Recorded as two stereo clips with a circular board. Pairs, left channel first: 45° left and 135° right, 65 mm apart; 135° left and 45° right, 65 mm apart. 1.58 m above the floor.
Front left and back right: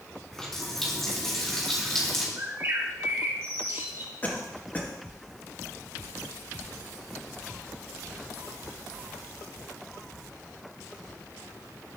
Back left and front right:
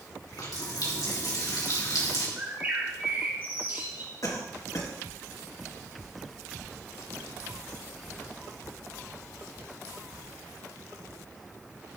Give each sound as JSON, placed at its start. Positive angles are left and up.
{"t": 0.3, "sound": "a running tap", "azimuth_deg": 125, "distance_m": 2.5}
{"t": 2.4, "sound": "a bird", "azimuth_deg": -100, "distance_m": 2.0}
{"t": 4.2, "sound": "a cough", "azimuth_deg": 105, "distance_m": 2.0}